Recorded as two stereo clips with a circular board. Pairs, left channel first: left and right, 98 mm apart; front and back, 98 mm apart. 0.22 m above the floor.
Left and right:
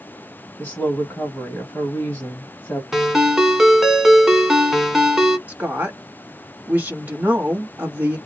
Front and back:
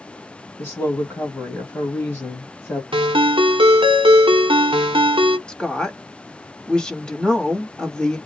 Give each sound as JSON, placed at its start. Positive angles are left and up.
{"t": 0.6, "sound": "a woman speaking", "azimuth_deg": 40, "distance_m": 1.1}
{"t": 2.9, "sound": "a ringtone", "azimuth_deg": -175, "distance_m": 0.7}
{"t": 5.5, "sound": "a woman speaking", "azimuth_deg": -65, "distance_m": 1.0}